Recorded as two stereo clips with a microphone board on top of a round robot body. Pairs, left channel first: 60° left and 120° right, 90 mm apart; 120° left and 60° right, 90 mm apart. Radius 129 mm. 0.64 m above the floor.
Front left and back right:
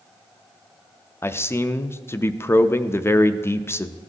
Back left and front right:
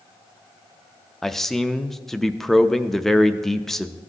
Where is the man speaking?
35° left, 0.5 m.